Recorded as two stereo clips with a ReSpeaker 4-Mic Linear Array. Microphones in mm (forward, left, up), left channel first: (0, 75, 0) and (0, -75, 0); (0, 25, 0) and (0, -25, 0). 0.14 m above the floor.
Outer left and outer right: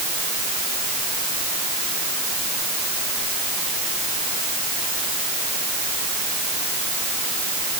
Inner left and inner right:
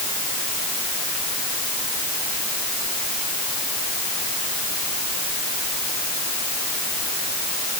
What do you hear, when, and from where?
Only background noise.